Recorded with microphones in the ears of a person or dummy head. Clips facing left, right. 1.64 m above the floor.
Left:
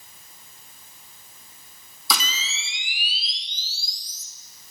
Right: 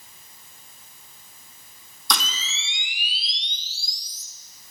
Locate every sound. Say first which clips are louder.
2.1 s a camera shutter: even; 5° left (ahead or behind), 1.2 m